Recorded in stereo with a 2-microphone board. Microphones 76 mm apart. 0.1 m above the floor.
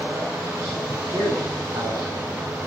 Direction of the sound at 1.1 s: 50° right (ahead or behind).